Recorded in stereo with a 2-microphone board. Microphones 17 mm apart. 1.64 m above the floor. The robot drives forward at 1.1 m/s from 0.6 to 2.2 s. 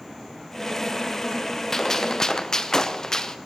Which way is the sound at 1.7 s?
25° left (ahead or behind).